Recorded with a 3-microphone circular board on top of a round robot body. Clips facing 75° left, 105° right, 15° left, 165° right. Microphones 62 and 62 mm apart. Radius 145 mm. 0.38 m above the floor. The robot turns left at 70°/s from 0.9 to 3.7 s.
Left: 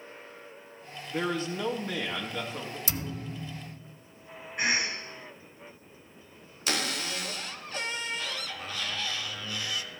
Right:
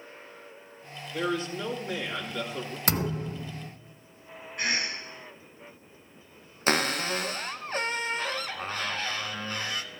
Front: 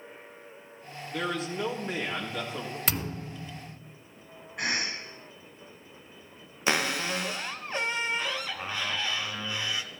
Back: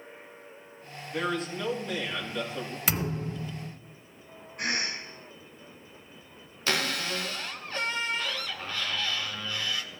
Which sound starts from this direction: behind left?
A man speaking, at 1.1 s.